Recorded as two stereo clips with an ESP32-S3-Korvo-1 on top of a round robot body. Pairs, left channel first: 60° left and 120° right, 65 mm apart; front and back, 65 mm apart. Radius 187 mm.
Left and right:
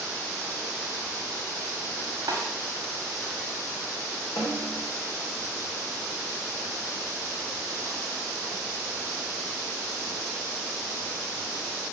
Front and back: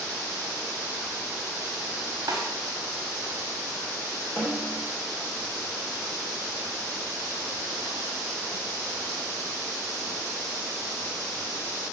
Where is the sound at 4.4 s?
50° left, 3 m.